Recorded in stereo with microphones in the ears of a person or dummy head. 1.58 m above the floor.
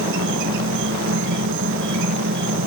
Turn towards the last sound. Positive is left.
turn(degrees=-65)  # may be behind; listen again after turning